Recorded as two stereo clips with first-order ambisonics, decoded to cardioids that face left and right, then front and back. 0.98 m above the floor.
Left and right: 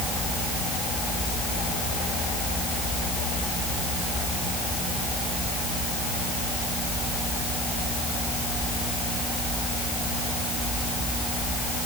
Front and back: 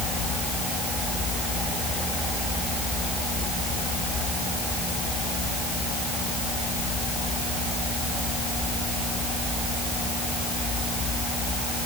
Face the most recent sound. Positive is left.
No sound to turn to.